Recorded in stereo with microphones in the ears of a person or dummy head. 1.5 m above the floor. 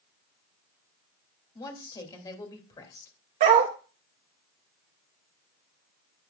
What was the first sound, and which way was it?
A woman speaking, 20° left (ahead or behind).